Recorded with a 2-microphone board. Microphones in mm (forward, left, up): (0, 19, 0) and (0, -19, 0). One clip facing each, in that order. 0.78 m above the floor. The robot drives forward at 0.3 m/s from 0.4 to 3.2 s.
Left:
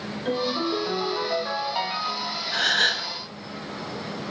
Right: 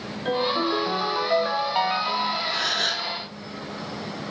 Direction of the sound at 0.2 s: 15° right (ahead or behind).